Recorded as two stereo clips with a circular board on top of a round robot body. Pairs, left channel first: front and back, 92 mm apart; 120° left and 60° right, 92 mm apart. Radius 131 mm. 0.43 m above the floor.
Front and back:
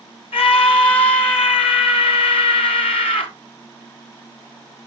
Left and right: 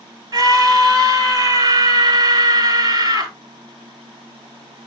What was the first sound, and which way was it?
A scream, 10° right.